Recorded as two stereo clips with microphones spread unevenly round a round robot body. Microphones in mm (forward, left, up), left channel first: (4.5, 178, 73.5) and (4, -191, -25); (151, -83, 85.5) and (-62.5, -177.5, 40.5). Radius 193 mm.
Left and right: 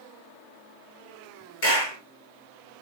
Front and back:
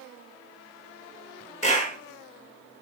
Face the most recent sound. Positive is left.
turn(degrees=110)